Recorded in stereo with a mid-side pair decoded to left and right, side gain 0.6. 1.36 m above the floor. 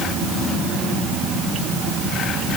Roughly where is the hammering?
I don't hear hammering.